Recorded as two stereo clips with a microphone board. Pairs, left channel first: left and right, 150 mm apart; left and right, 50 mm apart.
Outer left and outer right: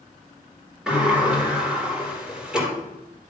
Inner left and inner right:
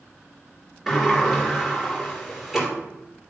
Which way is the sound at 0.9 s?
5° right (ahead or behind).